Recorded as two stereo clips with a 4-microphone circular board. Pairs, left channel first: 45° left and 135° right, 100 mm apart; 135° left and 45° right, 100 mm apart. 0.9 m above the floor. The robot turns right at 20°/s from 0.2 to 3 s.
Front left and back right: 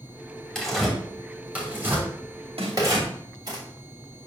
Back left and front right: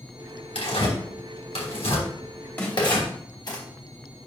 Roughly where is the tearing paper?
Behind left.